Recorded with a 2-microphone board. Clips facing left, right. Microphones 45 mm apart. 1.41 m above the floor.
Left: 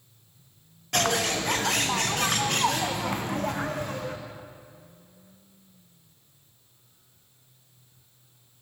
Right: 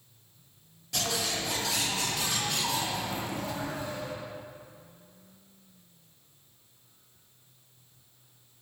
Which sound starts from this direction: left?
A bird, at 0.9 s.